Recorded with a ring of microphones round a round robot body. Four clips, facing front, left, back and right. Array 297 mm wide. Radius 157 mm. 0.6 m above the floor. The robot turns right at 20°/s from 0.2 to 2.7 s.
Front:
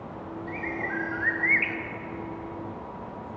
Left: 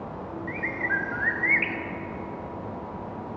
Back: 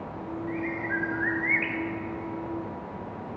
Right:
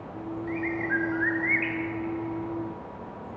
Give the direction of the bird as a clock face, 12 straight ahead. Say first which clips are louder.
Right 1 dB, back 1 dB; 11 o'clock.